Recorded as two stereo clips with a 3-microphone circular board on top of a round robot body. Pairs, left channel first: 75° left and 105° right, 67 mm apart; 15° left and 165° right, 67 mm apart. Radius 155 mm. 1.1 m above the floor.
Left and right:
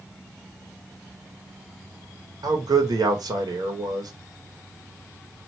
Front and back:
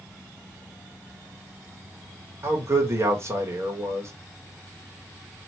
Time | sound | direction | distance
2.4 | a man speaking | 115° right | 1.4 m